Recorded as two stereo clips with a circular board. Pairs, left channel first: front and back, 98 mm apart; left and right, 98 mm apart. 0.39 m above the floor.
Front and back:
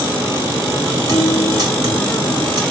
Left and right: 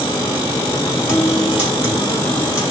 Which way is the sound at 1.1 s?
140° left.